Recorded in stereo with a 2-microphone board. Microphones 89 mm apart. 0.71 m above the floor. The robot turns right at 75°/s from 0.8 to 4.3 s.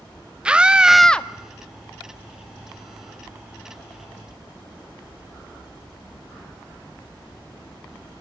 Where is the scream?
15° right, 0.8 m; by 1.3 s 25° left, 0.8 m.